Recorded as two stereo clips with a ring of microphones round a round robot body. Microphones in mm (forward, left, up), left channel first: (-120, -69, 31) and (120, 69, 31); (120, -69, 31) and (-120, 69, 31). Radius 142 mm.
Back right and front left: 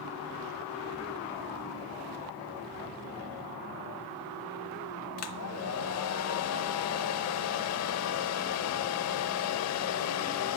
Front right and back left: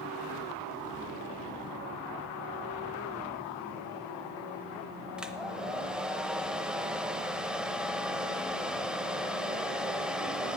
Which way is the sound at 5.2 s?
125° right.